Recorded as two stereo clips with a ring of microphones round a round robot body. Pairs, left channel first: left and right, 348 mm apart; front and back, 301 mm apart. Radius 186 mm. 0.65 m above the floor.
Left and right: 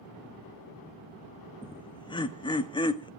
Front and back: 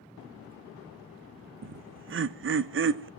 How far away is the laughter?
About 0.6 m.